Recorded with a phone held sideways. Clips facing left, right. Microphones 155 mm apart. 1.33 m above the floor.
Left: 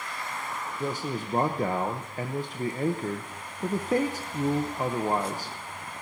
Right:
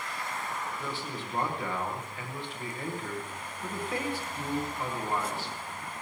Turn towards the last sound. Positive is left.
turn(degrees=45)  # may be behind; listen again after turning